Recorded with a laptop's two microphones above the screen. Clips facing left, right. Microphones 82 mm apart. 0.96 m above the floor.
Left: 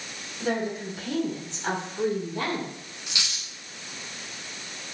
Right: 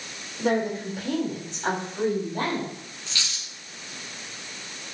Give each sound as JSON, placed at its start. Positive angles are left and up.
{"t": 0.4, "sound": "a woman speaking", "side_deg": -70, "distance_m": 3.5}
{"t": 3.1, "sound": "a dropped coin", "side_deg": 15, "distance_m": 1.5}